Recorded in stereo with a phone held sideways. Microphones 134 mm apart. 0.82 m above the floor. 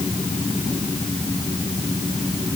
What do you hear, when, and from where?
Only background noise.